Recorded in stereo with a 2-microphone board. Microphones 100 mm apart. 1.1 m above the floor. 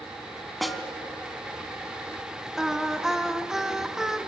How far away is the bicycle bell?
No bicycle bell in this recording.